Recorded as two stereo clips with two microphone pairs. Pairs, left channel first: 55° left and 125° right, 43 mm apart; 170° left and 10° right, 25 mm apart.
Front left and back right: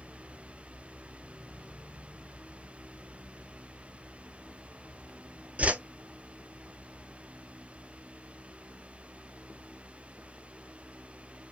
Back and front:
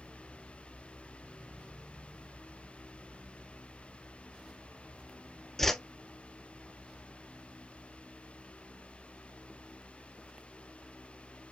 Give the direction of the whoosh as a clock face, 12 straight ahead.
4 o'clock.